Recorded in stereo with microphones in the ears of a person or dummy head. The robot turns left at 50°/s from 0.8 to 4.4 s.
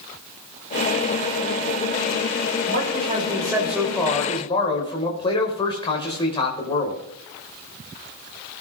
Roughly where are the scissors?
No scissors in this recording.